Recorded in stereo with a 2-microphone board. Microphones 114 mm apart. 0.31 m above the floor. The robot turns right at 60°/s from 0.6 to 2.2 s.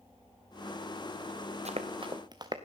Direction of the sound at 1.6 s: 70° right (ahead or behind).